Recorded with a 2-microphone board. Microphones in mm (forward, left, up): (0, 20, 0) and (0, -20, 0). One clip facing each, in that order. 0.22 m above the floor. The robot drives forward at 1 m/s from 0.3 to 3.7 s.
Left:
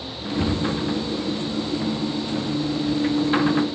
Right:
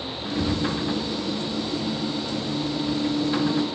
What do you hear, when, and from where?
0.4 s a cupboard door: 65° left (ahead or behind), 2.5 m; by 0.7 s 70° left (ahead or behind), 2.5 m